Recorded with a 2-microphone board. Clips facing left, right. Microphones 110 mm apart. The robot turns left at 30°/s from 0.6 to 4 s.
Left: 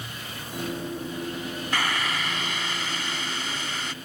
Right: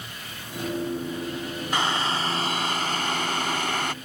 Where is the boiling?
25° right; by 3.9 s 95° right.